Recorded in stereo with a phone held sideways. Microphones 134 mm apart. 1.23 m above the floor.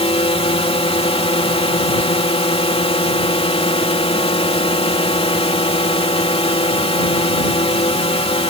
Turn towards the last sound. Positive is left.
turn(degrees=45)  # may be behind; listen again after turning